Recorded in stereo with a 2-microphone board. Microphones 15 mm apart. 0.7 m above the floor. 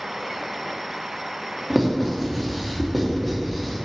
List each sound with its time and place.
1.7 s writing: 5° left (ahead or behind), 1.4 m